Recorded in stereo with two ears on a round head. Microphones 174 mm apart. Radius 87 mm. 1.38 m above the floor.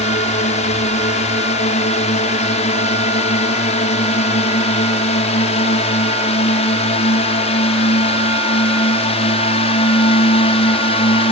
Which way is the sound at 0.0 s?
35° left (ahead or behind).